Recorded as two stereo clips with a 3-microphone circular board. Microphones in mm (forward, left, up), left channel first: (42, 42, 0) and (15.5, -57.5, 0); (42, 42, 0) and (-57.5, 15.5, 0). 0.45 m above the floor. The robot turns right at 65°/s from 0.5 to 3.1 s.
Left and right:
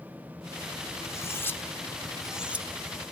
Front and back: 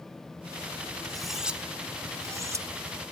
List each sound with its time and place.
1.0 s cutlery clinking: 95° left, 0.6 m; by 2.7 s 160° right, 0.6 m